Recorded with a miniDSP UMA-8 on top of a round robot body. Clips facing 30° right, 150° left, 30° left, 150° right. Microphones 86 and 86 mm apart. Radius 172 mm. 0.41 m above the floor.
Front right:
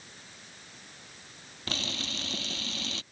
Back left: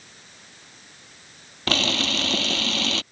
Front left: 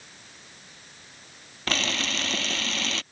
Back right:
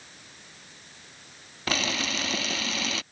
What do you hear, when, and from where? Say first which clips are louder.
1.7 s a camera shutter: back left 13 dB, even; 125° left